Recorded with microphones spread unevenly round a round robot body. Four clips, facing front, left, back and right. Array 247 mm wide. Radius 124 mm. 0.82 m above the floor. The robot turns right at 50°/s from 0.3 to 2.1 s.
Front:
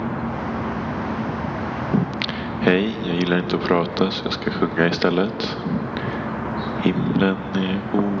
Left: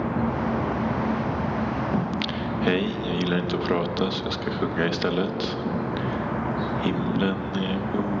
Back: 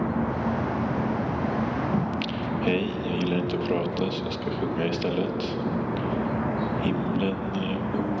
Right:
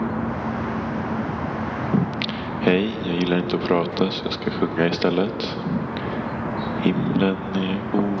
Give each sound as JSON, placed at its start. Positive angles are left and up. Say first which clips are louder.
{"t": 1.9, "sound": "singing", "louder": "right 3 dB, front 4 dB", "azimuth_deg": -45, "distance_m": 1.1}